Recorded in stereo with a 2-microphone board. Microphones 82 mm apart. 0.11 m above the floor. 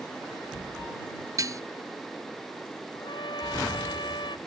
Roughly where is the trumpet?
Left.